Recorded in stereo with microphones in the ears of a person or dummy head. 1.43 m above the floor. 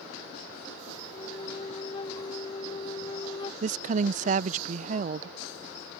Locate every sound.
1.1 s a flute: 30° left (ahead or behind)
3.6 s a woman speaking: 50° right (ahead or behind)